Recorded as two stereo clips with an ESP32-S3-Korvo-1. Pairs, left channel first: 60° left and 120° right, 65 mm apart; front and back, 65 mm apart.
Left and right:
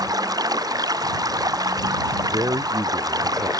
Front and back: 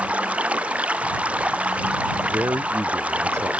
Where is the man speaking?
140° right.